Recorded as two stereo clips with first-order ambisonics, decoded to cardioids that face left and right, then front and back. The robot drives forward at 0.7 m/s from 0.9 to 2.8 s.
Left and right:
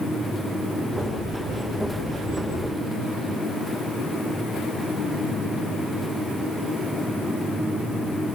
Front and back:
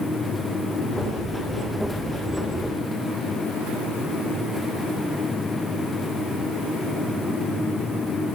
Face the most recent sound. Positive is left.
No sound to turn to.